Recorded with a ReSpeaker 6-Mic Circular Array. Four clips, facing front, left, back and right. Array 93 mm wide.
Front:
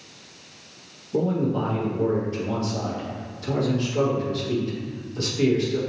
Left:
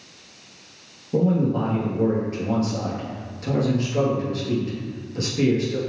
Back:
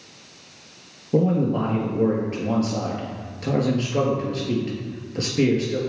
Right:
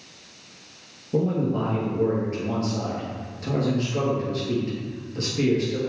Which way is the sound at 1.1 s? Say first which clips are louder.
Left 3 dB, back 3 dB; 175° left.